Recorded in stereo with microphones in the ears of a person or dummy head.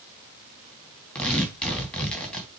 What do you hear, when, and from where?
1.1 s tearing paper: 5° left (ahead or behind), 3 m